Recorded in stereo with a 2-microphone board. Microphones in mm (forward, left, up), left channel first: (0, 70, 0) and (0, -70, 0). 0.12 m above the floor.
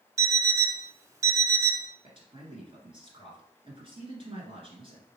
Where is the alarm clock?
20° right (ahead or behind), 0.6 m.